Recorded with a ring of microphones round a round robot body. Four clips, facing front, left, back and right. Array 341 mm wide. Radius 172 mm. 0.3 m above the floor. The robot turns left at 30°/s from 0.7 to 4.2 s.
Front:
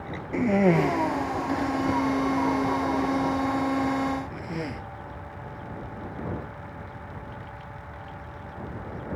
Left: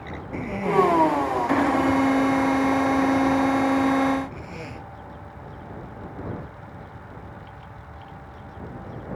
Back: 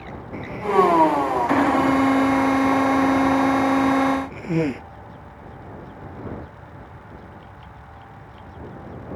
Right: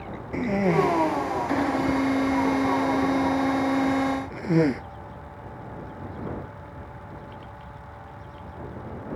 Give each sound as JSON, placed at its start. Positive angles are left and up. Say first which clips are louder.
{"t": 0.3, "sound": "a cough", "louder": "left 1 dB, back 1 dB", "azimuth_deg": -20}